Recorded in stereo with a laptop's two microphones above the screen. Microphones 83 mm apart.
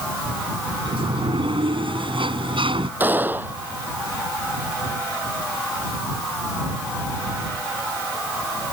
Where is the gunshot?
25° right (ahead or behind).